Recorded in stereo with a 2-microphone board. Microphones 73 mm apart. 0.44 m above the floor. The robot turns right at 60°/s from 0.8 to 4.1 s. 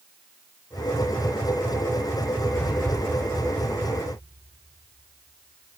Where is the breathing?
25° left (ahead or behind), 9 m; by 2.8 s 10° left (ahead or behind), 9 m.